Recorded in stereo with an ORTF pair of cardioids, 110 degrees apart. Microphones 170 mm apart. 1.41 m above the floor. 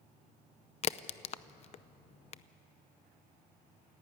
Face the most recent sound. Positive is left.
turn(degrees=40)